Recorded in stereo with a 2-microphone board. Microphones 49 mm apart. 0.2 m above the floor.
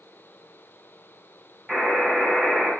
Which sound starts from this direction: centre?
A buzzer, at 1.7 s.